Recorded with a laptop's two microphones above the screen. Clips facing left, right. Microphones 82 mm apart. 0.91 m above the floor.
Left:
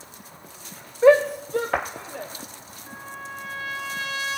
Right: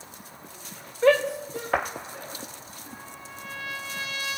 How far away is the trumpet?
About 3.5 m.